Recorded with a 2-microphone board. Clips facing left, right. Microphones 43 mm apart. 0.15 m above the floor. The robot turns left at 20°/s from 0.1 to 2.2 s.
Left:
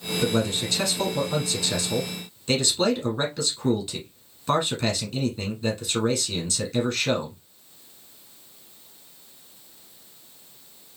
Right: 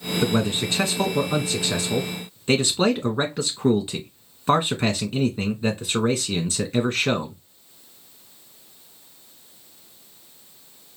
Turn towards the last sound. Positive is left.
turn(degrees=-25)  # may be behind; listen again after turning